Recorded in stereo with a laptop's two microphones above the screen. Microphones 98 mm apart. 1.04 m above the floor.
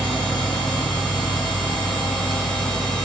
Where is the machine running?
5° left (ahead or behind), 1.5 m.